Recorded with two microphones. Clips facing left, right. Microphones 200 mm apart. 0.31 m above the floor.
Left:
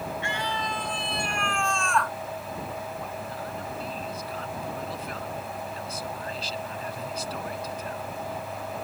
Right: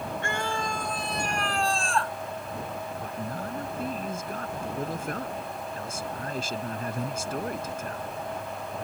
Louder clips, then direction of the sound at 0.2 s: Right 1 dB; 55° right (ahead or behind).